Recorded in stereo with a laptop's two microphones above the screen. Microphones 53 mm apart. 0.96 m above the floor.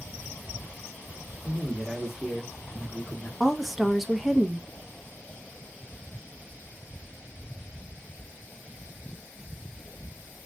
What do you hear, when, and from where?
1.4 s a man speaking: 25° right (ahead or behind), 1.2 m; by 3.3 s 30° left (ahead or behind), 1.2 m
3.4 s a woman speaking: centre (ahead or behind), 0.6 m